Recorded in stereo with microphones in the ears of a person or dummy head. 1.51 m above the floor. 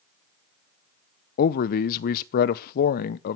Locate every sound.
1.4 s a man speaking: 50° left (ahead or behind), 0.6 m